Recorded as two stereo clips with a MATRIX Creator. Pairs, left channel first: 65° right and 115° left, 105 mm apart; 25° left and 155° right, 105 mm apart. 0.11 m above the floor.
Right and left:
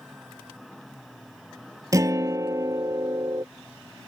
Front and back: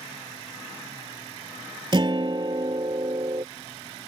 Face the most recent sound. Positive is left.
turn(degrees=165)